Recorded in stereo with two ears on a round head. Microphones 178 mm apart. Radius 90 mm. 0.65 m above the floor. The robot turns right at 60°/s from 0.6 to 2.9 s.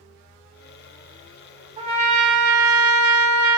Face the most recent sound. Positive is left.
turn(degrees=-85)